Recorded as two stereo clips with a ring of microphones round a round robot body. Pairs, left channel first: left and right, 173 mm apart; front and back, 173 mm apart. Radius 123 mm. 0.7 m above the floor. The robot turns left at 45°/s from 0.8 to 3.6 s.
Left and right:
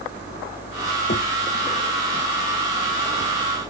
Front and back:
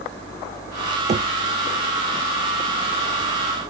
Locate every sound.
1.1 s knocking: 130° left; by 1.3 s 120° left